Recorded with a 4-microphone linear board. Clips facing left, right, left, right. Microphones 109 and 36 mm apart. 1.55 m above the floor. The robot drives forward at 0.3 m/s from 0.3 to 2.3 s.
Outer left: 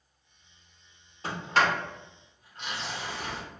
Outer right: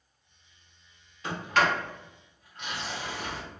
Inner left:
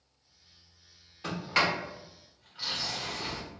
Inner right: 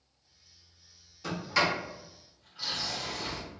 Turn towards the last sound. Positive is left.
turn(degrees=30)  # may be behind; listen again after turning